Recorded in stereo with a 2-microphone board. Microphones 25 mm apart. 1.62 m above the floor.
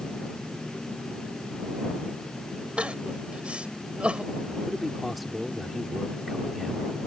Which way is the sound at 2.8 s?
55° right (ahead or behind).